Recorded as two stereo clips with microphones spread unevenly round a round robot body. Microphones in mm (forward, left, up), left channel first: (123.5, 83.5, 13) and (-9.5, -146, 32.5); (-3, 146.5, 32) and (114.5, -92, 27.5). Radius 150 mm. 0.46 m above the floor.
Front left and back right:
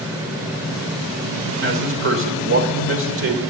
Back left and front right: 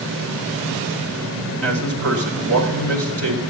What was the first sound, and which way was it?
A man speaking, 90° right.